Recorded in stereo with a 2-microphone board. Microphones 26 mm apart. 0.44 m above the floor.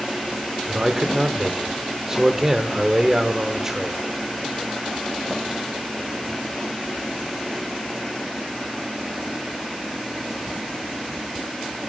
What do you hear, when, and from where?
0.7 s a man speaking: 15° right (ahead or behind), 0.9 m